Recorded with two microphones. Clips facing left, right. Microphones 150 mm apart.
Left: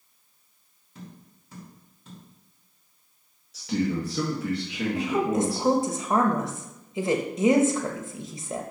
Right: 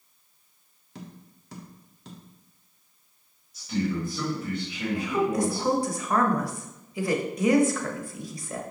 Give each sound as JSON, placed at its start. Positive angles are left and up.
{"t": 0.9, "sound": "tapping", "side_deg": -75, "distance_m": 1.4}
{"t": 3.5, "sound": "a man speaking", "side_deg": 75, "distance_m": 1.7}
{"t": 5.0, "sound": "a woman speaking", "side_deg": 20, "distance_m": 1.0}